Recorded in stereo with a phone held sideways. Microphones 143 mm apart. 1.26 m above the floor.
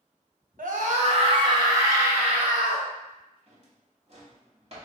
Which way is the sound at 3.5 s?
45° right (ahead or behind).